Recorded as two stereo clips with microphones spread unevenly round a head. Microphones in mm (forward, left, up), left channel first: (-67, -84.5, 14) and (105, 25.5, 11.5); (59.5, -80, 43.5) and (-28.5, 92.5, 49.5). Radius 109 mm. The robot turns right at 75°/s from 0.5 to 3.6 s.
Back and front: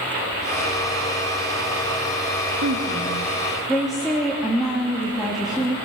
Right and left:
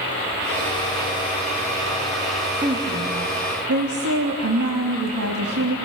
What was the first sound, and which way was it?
A woman speaking, 50° left.